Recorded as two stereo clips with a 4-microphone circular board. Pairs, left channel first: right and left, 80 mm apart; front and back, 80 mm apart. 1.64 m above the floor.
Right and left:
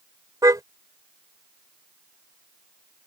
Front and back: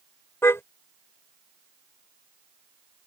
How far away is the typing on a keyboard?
No typing on a keyboard in this recording.